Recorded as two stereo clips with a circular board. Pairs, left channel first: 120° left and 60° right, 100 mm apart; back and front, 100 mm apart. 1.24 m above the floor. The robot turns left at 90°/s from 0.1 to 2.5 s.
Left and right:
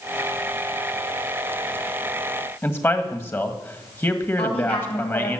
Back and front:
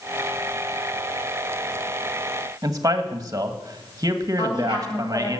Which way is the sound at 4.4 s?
120° left.